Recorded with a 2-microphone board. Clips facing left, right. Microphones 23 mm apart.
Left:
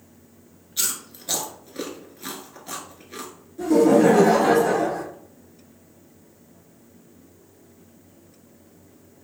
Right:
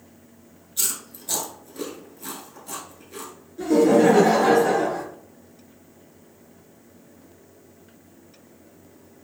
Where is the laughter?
25° right (ahead or behind), 1.3 m.